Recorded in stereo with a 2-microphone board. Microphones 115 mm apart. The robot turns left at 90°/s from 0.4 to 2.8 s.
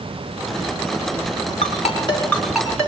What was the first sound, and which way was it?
A ringtone, 80° left.